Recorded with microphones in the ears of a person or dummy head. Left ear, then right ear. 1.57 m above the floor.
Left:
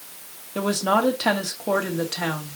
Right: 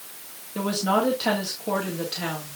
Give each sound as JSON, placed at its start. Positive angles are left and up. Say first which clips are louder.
{"t": 0.6, "sound": "a woman speaking", "louder": "left 2 dB", "side_deg": 30, "distance_m": 2.5}